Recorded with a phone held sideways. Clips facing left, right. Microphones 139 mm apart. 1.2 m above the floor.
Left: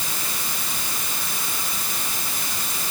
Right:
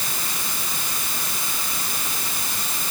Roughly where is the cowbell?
No cowbell in this recording.